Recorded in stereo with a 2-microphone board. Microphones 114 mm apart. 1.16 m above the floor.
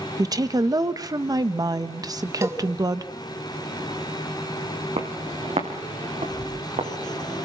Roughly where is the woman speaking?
Right.